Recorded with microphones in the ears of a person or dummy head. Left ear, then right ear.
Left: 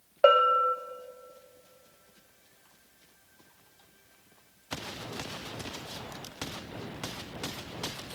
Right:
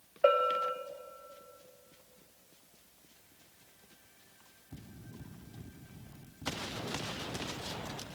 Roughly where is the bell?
Left.